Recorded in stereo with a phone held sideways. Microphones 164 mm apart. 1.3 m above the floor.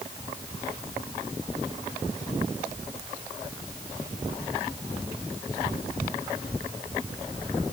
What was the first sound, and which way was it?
Only background noise.